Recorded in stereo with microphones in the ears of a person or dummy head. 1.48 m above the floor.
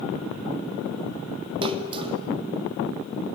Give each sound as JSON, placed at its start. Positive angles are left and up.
{"t": 1.6, "sound": "a splash", "side_deg": -30, "distance_m": 3.0}